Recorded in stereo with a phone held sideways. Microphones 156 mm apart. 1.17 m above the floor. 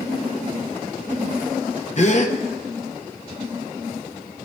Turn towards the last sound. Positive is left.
turn(degrees=45)  # may be behind; listen again after turning